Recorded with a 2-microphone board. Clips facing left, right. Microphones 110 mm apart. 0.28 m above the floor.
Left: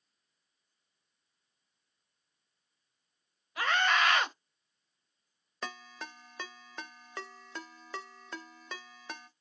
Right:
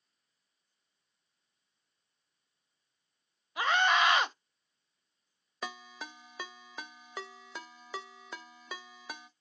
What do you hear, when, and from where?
3.6 s a scream: 20° right (ahead or behind), 0.9 m
5.6 s a ringtone: 5° right (ahead or behind), 0.6 m